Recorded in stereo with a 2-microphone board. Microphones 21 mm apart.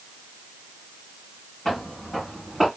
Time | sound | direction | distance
1.6 | footsteps | 20° left (ahead or behind) | 2 m